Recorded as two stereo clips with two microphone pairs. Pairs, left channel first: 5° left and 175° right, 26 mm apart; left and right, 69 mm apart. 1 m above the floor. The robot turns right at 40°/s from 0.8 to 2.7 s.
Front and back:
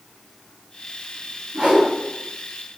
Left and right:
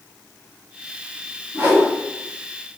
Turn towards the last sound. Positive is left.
turn(degrees=-90)